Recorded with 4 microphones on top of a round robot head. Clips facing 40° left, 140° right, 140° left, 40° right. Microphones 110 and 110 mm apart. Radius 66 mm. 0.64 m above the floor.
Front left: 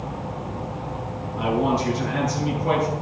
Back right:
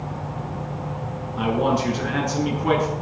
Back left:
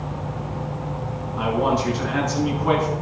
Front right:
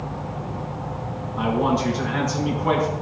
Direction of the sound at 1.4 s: 130° right.